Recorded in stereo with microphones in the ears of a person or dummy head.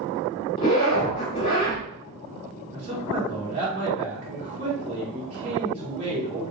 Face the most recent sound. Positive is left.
turn(degrees=-35)  # may be behind; listen again after turning